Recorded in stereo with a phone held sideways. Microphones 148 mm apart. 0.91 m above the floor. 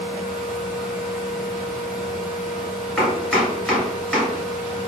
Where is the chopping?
5° left (ahead or behind), 1.9 m.